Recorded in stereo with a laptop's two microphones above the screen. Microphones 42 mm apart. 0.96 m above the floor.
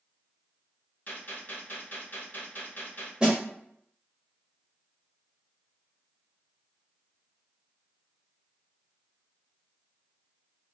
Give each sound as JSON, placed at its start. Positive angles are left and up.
{"t": 1.1, "sound": "a gunshot", "side_deg": 40, "distance_m": 0.8}
{"t": 3.2, "sound": "a snare drum", "side_deg": -20, "distance_m": 1.0}